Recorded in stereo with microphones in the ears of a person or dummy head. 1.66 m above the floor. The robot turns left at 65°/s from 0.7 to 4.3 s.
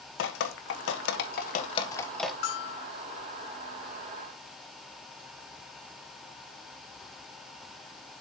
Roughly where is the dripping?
Left.